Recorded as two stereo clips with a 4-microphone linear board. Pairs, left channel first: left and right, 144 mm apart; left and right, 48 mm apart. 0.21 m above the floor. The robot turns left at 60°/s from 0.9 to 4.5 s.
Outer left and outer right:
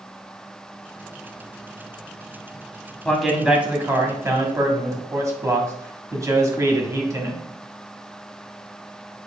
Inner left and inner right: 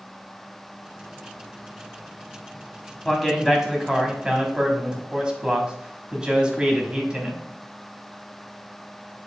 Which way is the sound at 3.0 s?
5° left (ahead or behind).